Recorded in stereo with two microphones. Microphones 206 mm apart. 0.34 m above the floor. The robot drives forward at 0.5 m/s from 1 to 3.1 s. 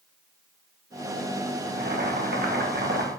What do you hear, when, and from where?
1.7 s boiling: 55° right (ahead or behind), 1.7 m; by 3.1 s 60° right (ahead or behind), 1.6 m